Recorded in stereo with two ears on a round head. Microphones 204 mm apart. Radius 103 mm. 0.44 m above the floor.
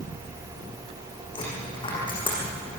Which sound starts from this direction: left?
A dropped coin, at 1.4 s.